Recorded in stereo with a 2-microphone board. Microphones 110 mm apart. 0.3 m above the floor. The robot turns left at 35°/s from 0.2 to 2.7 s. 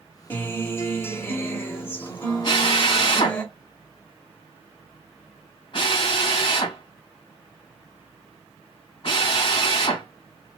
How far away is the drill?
About 2.5 m.